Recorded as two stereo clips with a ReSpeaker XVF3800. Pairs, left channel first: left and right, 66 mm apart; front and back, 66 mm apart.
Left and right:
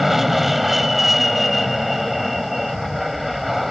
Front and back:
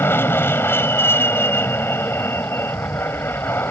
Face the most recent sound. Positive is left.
turn(degrees=-5)